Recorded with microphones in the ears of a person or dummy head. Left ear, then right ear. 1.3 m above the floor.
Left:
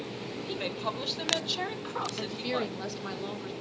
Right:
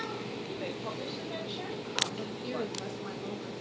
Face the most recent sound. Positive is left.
turn(degrees=40)  # may be behind; listen again after turning